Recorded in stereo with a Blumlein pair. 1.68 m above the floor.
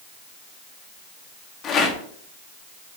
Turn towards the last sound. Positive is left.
turn(degrees=30)